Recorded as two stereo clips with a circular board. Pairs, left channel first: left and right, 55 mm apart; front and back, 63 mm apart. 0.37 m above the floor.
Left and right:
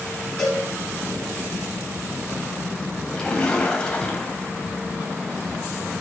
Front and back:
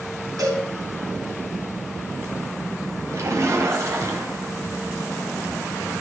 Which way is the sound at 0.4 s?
170° left.